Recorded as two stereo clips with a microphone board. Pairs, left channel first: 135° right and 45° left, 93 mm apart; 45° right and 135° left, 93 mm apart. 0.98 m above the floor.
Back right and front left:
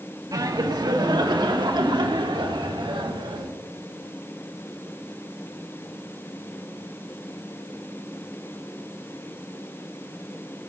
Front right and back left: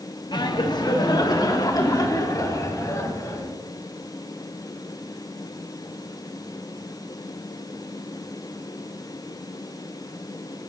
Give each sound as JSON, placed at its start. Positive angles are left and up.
{"t": 0.3, "sound": "laughter", "azimuth_deg": -5, "distance_m": 1.8}